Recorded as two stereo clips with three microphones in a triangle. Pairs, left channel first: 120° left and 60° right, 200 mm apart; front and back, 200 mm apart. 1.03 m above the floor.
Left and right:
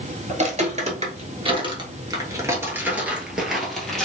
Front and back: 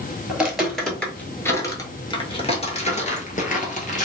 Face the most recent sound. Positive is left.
turn(degrees=35)